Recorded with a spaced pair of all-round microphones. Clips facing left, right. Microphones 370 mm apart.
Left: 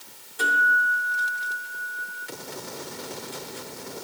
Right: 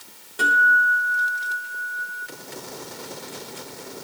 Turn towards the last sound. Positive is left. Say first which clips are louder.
# right 3 dB
turn(degrees=-80)